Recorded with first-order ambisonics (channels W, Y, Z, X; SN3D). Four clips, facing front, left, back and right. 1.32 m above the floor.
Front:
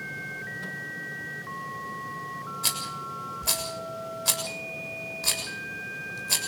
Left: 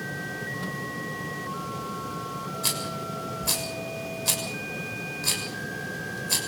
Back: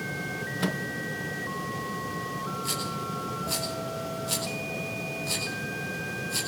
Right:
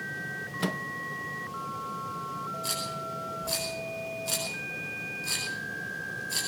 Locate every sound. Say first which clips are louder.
0.6 s a microwave: right 2 dB, back 6 dB; 145° right, 0.7 m
2.6 s a rattle: left 6 dB, even; 40° left, 7 m